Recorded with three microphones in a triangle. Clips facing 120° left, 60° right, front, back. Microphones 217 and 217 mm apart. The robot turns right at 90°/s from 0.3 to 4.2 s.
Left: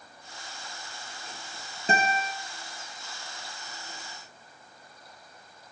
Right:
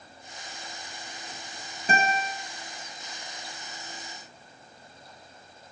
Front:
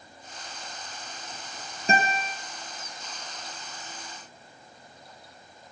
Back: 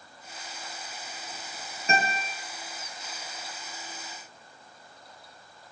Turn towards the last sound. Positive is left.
turn(degrees=-95)